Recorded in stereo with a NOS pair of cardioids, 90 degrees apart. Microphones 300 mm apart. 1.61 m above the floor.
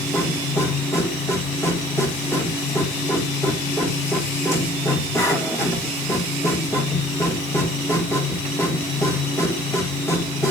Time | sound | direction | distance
0.0 | a machine running | 10° left | 2 m